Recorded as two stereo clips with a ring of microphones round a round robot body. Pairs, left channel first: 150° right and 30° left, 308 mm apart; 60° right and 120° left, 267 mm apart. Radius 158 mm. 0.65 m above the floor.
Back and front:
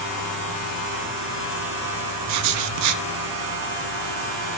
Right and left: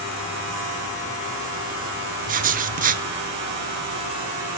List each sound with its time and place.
2.3 s writing: 60° left, 0.6 m